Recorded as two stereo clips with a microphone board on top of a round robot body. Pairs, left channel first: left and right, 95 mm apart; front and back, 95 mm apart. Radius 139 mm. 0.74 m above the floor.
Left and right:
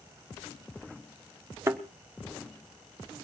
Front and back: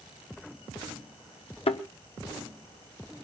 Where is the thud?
25° right, 1.0 m.